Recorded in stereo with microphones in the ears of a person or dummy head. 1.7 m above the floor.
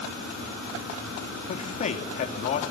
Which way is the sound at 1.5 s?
35° left (ahead or behind).